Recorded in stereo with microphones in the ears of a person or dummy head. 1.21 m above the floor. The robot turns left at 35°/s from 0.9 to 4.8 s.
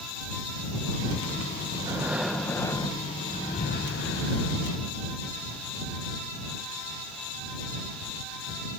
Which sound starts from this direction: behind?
Breathing, at 1.8 s.